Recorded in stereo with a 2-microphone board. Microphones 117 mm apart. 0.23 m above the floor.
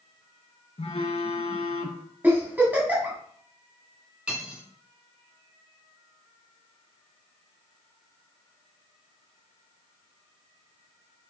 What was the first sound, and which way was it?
A phone buzzing, 65° left (ahead or behind).